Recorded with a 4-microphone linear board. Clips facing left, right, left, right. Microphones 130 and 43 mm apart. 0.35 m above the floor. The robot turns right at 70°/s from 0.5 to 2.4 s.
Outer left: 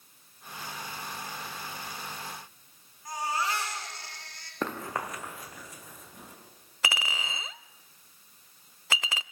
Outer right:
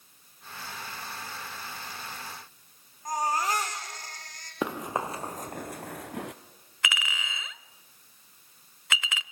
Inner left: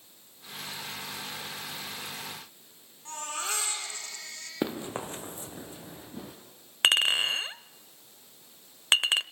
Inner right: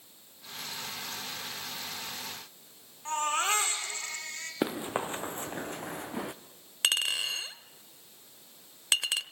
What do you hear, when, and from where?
3.0 s a baby crying: 45° right (ahead or behind), 8.5 m
4.6 s running footsteps: 10° right (ahead or behind), 2 m; by 6.3 s 85° right, 2 m
6.8 s a clink: 35° left (ahead or behind), 0.6 m